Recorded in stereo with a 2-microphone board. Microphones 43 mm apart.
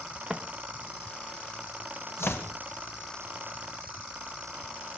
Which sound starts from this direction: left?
Chopping, at 2.2 s.